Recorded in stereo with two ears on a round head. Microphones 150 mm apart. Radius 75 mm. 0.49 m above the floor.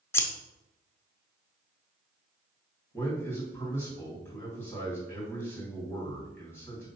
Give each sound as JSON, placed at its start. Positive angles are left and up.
{"t": 0.1, "sound": "scissors", "side_deg": 15, "distance_m": 0.7}
{"t": 2.9, "sound": "a man speaking", "side_deg": 15, "distance_m": 3.5}